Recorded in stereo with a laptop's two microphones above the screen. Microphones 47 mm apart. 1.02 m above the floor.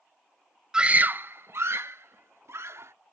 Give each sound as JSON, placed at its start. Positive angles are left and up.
{"t": 0.7, "sound": "a scream", "side_deg": -10}